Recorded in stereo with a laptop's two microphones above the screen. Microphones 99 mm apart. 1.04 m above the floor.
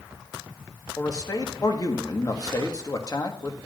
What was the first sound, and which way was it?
A man speaking, 40° left (ahead or behind).